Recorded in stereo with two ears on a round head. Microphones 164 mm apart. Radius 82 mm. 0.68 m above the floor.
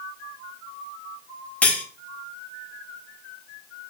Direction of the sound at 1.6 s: 5° left (ahead or behind).